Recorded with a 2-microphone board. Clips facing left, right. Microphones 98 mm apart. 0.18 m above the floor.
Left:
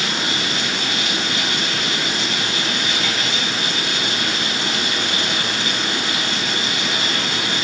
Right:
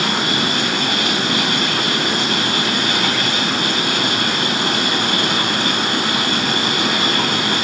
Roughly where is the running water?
Right.